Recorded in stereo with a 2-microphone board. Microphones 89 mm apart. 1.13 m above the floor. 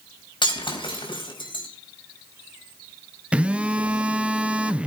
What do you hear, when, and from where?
0.4 s breaking glass: 65° left (ahead or behind), 4.5 m
3.3 s a phone buzzing: 15° right (ahead or behind), 0.7 m